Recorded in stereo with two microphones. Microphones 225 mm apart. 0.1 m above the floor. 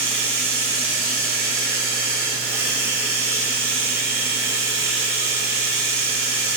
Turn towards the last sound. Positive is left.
turn(degrees=-15)  # may be behind; listen again after turning